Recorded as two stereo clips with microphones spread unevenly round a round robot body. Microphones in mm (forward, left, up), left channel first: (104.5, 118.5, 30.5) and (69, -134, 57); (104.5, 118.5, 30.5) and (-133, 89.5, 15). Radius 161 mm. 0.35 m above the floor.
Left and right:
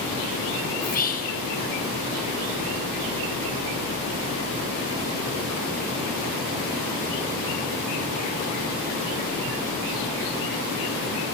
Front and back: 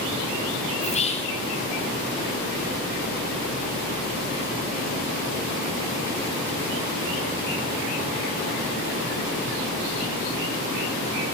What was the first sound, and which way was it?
Whispering, 60° left.